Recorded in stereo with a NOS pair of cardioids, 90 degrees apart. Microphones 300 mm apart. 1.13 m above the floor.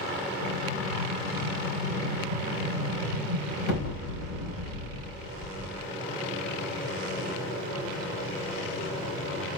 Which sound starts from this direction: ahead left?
An explosion, at 0.4 s.